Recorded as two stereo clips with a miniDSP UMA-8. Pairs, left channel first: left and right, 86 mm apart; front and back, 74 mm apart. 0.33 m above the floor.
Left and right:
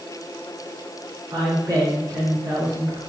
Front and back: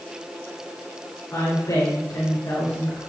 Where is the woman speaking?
45° right, 4 m.